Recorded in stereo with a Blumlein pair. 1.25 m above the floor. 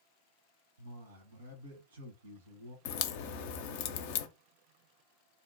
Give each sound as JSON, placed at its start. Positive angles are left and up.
{"t": 0.8, "sound": "a man speaking", "azimuth_deg": -65, "distance_m": 1.1}
{"t": 2.9, "sound": "a crack", "azimuth_deg": 50, "distance_m": 0.5}